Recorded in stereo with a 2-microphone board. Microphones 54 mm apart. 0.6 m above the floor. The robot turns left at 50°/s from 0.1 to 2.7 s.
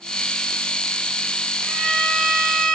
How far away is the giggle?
I don't hear a giggle.